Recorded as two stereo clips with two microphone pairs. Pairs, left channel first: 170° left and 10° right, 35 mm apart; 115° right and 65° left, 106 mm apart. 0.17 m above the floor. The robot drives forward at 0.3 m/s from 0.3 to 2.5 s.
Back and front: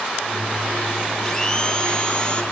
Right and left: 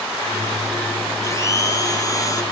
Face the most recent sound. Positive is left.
turn(degrees=-155)